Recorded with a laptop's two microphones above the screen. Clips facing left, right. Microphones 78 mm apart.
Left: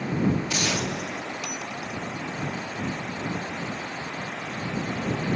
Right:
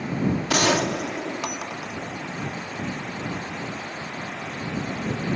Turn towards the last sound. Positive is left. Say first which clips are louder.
# right 6 dB
turn(degrees=-75)  # may be behind; listen again after turning